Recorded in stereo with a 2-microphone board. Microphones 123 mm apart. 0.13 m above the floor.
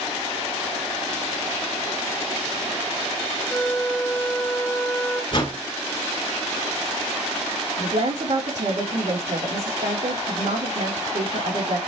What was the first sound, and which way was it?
A flute, 15° left (ahead or behind).